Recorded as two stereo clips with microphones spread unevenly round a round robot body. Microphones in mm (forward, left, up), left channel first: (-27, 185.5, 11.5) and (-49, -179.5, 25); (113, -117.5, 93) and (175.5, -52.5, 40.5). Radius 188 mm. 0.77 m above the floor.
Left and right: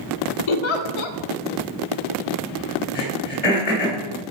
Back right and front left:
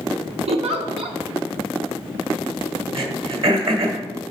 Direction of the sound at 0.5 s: 65° left.